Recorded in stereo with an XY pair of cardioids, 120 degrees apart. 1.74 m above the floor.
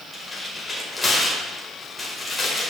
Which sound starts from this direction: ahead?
Tearing paper, at 0.1 s.